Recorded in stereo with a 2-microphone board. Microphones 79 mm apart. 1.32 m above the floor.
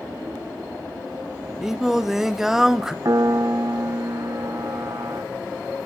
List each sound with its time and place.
1.6 s singing: 5° right (ahead or behind), 0.6 m
3.0 s a piano: 45° right (ahead or behind), 0.7 m